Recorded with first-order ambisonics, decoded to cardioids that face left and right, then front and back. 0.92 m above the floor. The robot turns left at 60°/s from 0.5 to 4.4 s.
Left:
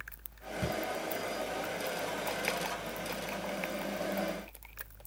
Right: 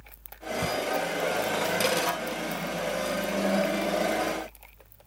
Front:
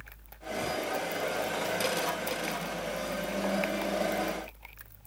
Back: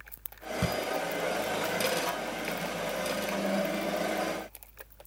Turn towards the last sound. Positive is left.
turn(degrees=-35)